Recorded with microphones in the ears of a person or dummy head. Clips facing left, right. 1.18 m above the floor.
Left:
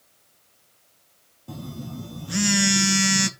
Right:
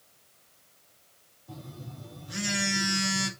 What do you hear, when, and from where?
1.5 s a phone buzzing: 65° left (ahead or behind), 0.8 m